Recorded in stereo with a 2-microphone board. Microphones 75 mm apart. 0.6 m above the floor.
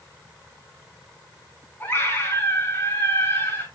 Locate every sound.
1.8 s a scream: 25° left (ahead or behind), 5.5 m